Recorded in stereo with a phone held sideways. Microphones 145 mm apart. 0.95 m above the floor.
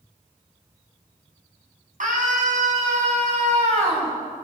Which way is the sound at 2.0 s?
65° right (ahead or behind).